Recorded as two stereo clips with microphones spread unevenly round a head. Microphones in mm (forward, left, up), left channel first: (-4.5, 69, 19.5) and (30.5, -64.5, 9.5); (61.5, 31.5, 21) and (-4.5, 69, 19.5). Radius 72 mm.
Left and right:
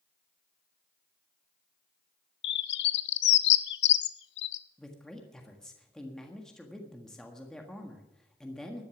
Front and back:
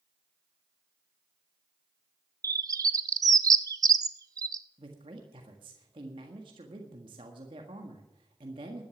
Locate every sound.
2.4 s a bird: 110° left, 0.8 m
4.8 s a man speaking: 170° right, 1.5 m